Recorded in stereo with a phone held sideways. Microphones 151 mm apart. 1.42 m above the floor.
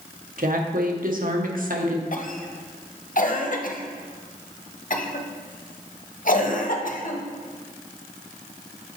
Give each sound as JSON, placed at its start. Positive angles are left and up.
{"t": 0.4, "sound": "a woman speaking", "side_deg": -60, "distance_m": 1.1}
{"t": 2.1, "sound": "a cough", "side_deg": 60, "distance_m": 0.9}